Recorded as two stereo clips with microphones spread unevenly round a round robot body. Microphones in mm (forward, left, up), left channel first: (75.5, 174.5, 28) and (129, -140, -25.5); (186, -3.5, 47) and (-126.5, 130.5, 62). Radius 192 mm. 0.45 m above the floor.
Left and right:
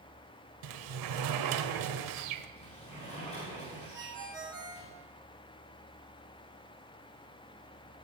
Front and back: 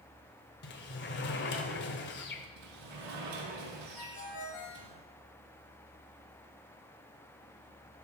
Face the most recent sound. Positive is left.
turn(degrees=0)